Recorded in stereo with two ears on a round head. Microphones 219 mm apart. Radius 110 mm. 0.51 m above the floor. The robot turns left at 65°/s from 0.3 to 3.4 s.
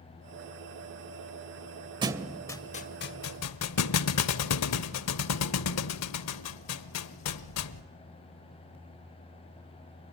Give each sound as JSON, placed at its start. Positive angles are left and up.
{"t": 2.0, "sound": "a thud", "side_deg": -20, "distance_m": 0.6}